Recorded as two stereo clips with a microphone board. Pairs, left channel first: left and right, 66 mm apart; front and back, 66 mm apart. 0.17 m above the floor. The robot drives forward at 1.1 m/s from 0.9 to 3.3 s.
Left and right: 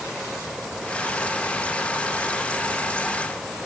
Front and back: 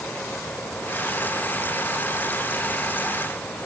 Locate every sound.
Only background noise.